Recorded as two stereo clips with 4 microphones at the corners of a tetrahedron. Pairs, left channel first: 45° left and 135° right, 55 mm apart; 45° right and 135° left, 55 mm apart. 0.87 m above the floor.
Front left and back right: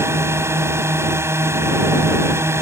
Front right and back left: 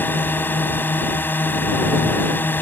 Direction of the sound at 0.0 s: 100° right.